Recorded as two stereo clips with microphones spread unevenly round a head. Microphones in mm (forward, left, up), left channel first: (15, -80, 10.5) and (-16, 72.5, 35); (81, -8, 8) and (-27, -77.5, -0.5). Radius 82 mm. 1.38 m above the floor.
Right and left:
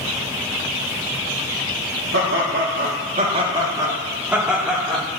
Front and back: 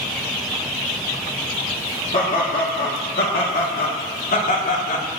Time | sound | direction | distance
2.1 | laughter | 85° left | 1.9 m